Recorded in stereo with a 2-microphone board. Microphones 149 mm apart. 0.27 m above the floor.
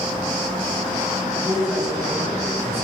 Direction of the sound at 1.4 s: Centre (ahead or behind).